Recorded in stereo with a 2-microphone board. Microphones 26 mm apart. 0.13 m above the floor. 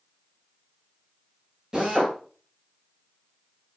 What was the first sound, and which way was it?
A drill, 25° right (ahead or behind).